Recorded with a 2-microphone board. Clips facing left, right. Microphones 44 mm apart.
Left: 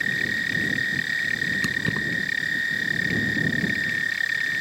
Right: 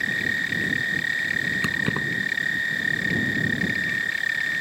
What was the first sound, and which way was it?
Keys jangling, 25° right (ahead or behind).